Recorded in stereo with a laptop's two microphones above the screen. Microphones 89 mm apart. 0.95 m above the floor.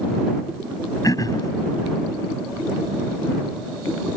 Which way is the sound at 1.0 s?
40° left (ahead or behind).